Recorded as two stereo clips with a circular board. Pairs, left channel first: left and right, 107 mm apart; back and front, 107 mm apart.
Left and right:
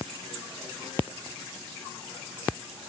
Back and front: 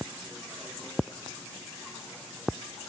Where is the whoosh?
I don't hear a whoosh.